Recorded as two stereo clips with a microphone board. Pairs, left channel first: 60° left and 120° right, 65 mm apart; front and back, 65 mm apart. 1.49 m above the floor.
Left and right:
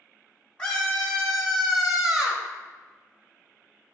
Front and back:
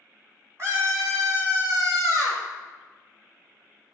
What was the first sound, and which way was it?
A scream, 135° left.